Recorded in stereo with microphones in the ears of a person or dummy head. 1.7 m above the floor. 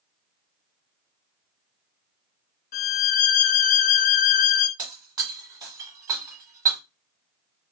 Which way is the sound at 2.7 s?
50° left (ahead or behind).